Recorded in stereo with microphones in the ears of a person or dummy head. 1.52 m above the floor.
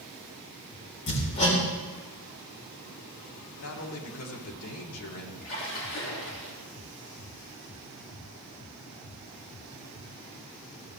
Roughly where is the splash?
Left.